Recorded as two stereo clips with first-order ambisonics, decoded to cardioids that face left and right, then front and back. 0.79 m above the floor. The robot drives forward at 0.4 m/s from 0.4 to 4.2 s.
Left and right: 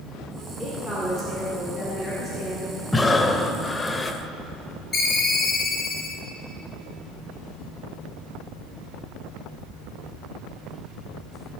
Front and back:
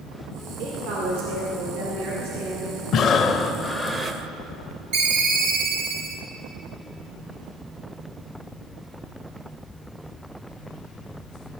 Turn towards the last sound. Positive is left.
turn(degrees=170)